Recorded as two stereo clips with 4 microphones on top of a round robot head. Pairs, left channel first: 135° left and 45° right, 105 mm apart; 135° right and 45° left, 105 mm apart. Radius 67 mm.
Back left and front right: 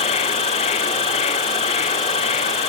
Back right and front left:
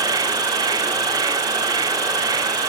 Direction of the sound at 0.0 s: 100° left.